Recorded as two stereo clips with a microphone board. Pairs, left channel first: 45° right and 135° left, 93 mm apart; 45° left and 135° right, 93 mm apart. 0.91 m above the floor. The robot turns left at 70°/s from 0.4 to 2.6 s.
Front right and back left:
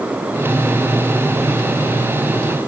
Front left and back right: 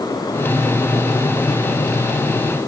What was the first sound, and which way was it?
Only background noise.